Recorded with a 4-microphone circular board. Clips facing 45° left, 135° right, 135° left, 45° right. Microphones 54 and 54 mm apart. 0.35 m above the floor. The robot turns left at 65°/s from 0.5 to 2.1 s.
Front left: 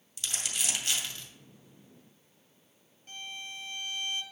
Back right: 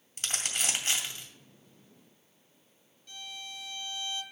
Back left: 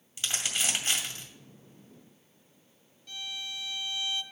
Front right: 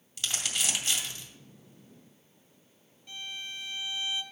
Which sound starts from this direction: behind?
Crumpling, at 0.2 s.